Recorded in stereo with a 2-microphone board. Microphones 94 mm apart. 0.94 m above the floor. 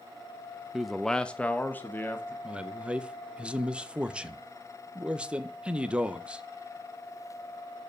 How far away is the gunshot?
No gunshot in this recording.